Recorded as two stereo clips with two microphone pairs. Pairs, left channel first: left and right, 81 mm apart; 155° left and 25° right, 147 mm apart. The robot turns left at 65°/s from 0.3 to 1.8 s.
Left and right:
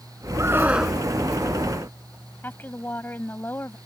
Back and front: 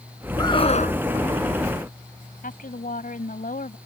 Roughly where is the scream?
Behind right.